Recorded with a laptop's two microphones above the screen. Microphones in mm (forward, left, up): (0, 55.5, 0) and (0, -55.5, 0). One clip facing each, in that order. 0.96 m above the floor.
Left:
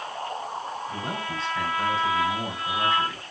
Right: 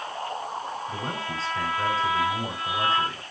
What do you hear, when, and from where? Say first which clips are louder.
0.9 s a man speaking: even; 30° right (ahead or behind), 5 m